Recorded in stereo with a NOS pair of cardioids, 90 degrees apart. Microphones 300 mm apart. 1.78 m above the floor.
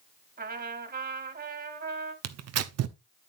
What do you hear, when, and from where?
0.4 s a trumpet: 30° right, 2.5 m
2.2 s tearing paper: 60° right, 0.9 m